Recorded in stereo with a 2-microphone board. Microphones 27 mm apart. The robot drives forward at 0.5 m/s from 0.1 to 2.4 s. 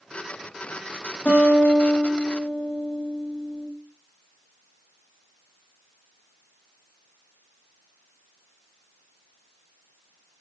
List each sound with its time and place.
1.2 s a guitar: 75° left (ahead or behind), 4.5 m; by 3.7 s 70° left (ahead or behind), 4.5 m